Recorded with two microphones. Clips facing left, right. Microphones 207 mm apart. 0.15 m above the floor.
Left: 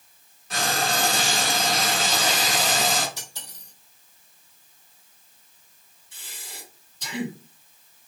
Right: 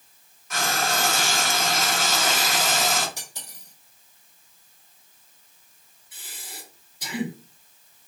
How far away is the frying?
About 2.0 m.